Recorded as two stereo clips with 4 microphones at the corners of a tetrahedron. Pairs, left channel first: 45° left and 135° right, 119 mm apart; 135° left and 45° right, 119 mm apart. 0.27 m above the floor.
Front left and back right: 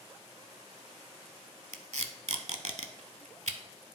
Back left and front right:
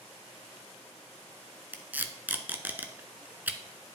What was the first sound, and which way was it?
Tape being pulled, 120° right.